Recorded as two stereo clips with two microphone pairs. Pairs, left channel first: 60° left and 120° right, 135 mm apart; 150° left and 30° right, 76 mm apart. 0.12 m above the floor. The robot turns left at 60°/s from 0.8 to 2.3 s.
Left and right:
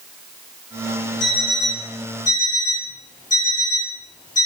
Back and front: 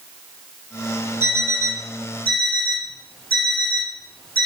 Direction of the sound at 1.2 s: 145° left.